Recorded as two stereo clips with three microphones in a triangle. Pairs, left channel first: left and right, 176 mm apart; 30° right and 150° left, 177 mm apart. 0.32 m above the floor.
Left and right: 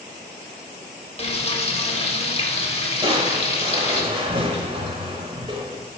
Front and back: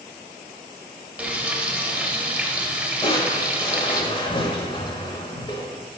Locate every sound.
1.2 s frying: 75° left, 0.8 m
3.0 s crushing: 65° right, 0.8 m